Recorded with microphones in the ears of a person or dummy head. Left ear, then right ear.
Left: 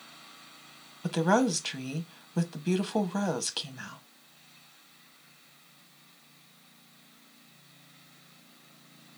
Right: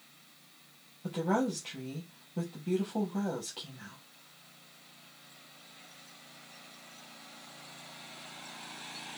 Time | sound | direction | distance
1.0 | a woman speaking | 60° left (ahead or behind) | 0.7 m